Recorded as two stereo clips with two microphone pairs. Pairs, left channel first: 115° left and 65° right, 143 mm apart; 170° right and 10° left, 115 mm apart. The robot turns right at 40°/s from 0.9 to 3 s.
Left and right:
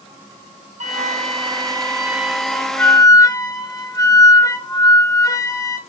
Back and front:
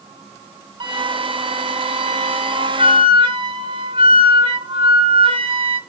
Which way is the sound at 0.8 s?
30° right.